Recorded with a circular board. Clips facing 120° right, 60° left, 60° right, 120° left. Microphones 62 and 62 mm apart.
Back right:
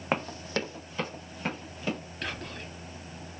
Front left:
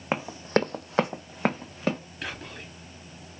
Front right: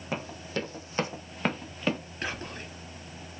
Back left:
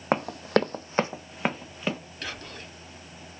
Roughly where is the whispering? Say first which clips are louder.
Back right 1 dB, front right 5 dB; ahead.